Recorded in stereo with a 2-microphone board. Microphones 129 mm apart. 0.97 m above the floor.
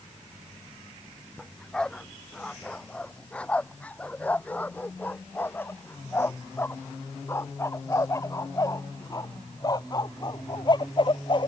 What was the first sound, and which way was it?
A dog barking, 5° left (ahead or behind).